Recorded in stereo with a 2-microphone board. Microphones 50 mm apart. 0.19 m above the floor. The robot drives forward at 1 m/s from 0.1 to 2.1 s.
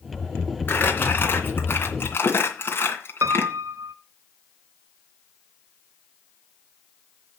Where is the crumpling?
35° left (ahead or behind), 3 m; by 3.5 s 45° left (ahead or behind), 2.5 m.